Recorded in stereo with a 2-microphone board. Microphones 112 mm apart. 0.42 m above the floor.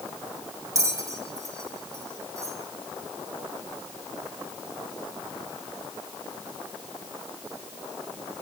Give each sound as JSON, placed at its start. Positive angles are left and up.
{"t": 0.8, "sound": "a bell", "side_deg": -30, "distance_m": 1.6}